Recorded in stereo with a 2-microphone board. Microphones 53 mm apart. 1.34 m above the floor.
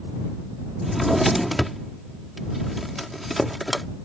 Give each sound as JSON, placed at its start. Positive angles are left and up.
{"t": 0.8, "sound": "a drawer", "side_deg": 0}